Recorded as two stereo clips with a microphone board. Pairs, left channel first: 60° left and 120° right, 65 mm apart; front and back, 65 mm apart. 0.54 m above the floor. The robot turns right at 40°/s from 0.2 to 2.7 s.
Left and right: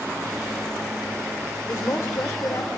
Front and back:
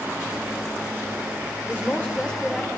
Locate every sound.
1.7 s a woman speaking: 45° left, 1.9 m; by 2.7 s 85° left, 1.9 m